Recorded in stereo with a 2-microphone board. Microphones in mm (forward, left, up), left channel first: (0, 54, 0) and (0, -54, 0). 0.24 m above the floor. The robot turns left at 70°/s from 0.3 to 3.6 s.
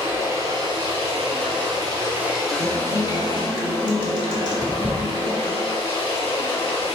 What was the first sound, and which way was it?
Running water, 25° right.